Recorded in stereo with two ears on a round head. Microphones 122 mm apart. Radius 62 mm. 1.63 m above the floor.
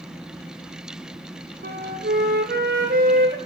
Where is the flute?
65° right (ahead or behind), 0.9 m.